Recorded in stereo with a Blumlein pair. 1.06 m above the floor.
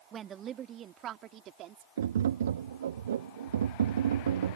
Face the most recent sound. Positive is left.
turn(degrees=-65)